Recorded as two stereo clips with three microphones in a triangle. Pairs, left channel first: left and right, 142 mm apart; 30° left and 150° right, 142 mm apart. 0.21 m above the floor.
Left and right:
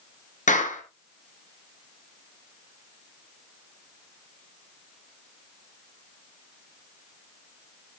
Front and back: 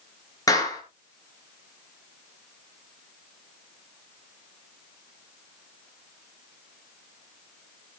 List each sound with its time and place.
0.5 s a clap: 90° left, 3 m